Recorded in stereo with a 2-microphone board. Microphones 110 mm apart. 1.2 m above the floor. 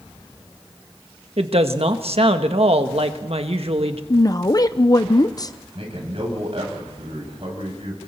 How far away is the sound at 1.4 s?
About 1.4 m.